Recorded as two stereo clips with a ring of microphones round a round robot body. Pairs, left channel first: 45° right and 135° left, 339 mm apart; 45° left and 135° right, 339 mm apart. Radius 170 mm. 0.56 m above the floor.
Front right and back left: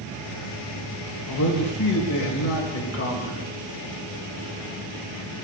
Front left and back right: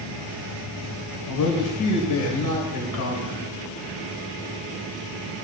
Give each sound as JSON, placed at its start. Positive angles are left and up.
{"t": 1.3, "sound": "a man speaking", "azimuth_deg": 5, "distance_m": 2.5}